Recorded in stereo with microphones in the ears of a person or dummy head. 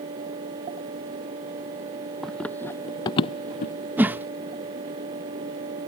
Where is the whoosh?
10° right (ahead or behind).